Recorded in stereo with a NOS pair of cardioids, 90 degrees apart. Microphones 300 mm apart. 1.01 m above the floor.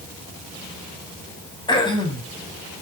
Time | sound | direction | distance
1.7 | throat clearing | 15° left | 8.5 m